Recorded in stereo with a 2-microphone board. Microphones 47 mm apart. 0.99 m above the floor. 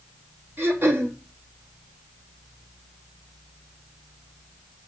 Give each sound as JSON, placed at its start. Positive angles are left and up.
{"t": 0.6, "sound": "throat clearing", "side_deg": -50, "distance_m": 1.6}